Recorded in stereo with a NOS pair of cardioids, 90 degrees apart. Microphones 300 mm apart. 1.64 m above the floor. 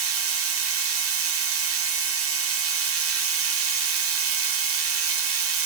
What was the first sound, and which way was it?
A machine running, 50° right.